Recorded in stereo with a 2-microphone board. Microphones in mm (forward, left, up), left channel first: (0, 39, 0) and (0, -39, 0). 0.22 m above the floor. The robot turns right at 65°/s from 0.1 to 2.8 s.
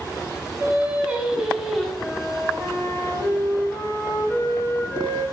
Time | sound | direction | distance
0.6 | singing | 25° right (ahead or behind) | 0.6 m
2.0 | a flute | 25° left (ahead or behind) | 1.6 m